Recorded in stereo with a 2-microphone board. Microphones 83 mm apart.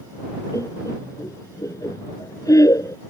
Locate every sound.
0.5 s laughter: 40° left (ahead or behind)